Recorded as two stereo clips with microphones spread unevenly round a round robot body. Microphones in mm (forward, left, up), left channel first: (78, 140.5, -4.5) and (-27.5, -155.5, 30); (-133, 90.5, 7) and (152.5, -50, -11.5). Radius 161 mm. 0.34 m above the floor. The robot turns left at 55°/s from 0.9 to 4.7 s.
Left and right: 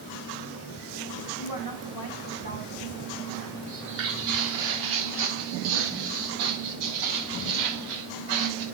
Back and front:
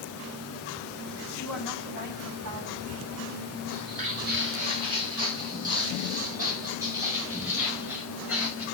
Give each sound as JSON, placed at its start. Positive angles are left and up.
{"t": 1.4, "sound": "a woman speaking", "azimuth_deg": 75, "distance_m": 3.5}
{"t": 3.7, "sound": "footsteps", "azimuth_deg": -40, "distance_m": 5.5}